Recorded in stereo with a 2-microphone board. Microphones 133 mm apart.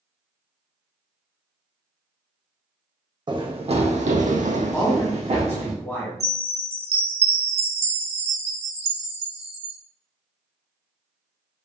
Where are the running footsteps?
35° right (ahead or behind), 0.7 m; by 5.7 s 50° right (ahead or behind), 1.1 m.